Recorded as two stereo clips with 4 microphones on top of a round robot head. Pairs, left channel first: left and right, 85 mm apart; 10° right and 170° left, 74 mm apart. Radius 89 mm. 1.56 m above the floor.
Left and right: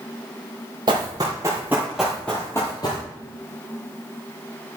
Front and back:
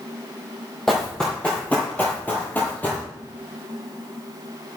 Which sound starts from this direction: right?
Running footsteps, at 0.9 s.